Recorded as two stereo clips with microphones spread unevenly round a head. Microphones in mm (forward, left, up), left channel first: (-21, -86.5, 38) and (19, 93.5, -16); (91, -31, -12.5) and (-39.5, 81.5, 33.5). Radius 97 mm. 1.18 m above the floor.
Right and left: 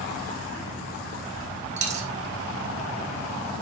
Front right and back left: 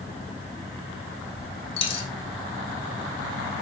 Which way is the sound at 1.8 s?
20° left.